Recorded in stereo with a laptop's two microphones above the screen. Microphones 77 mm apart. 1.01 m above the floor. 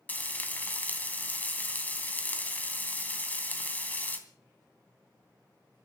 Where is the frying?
20° left (ahead or behind), 2.5 m.